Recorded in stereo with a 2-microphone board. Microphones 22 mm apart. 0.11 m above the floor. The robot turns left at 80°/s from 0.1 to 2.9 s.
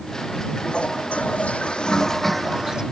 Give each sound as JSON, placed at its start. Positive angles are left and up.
{"t": 0.6, "sound": "a toilet flushing", "azimuth_deg": 140}